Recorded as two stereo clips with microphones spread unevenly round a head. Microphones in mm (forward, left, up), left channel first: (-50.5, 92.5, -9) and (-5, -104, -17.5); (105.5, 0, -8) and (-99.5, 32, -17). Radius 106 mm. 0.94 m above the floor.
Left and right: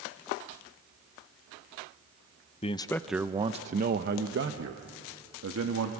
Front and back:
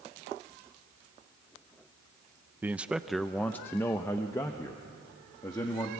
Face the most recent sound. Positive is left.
turn(degrees=-85)